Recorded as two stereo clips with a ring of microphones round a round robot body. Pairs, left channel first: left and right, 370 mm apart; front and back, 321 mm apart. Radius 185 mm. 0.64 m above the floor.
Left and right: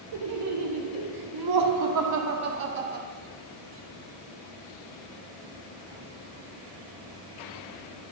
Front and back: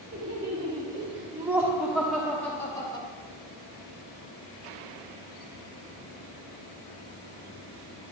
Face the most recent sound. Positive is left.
turn(degrees=-50)